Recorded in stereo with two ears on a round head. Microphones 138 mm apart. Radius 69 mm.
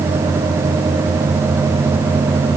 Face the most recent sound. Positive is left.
No sound to turn to.